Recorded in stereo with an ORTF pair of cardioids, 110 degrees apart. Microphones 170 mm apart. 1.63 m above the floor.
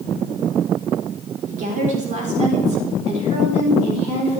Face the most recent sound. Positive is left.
turn(degrees=-35)